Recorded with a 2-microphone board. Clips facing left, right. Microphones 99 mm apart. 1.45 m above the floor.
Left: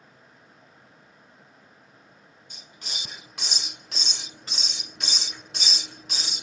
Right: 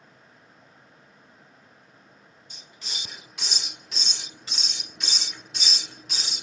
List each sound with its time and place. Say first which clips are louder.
2.5 s a hiss: left 1 dB; 45° left (ahead or behind), 1.1 m